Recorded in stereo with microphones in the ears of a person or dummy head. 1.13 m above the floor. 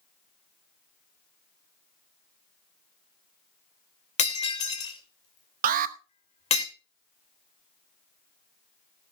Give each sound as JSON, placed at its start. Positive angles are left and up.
{"t": 4.2, "sound": "breaking glass", "side_deg": 35, "distance_m": 2.0}
{"t": 5.6, "sound": "an alarm", "side_deg": -45, "distance_m": 1.0}